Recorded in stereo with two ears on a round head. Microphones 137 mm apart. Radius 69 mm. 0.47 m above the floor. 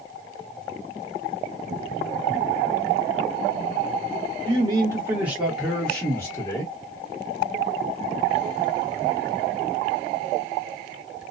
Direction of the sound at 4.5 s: 30° right (ahead or behind).